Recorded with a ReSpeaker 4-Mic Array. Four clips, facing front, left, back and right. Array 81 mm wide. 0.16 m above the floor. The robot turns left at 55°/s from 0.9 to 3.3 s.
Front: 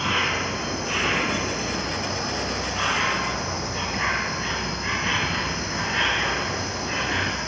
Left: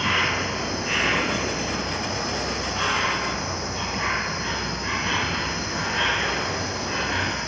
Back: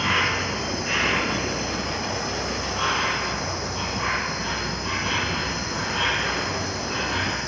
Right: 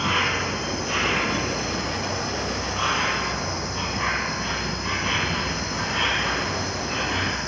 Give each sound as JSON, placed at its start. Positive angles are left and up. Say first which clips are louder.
{"t": 0.0, "sound": "an insect", "louder": "even, back 1 dB", "azimuth_deg": 150, "distance_m": 2.5}